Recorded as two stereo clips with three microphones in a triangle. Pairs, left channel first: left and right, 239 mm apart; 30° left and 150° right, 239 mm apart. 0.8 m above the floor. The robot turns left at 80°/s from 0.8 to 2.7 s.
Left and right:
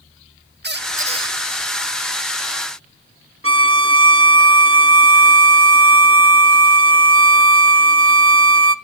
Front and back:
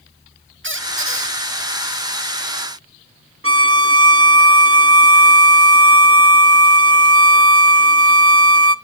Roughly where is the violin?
Behind right.